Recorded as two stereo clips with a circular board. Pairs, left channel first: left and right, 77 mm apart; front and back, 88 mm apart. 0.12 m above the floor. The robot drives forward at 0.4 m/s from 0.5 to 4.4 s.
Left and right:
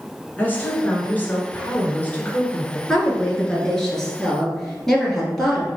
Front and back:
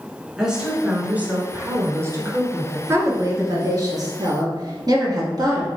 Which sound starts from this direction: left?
A woman speaking, at 0.4 s.